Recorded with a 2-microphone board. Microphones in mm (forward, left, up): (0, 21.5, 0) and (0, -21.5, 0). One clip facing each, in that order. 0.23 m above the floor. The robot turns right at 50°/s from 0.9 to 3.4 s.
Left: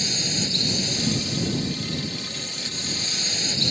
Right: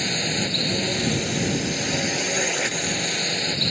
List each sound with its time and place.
0.0 s a drone: 150° right; by 3.7 s 25° right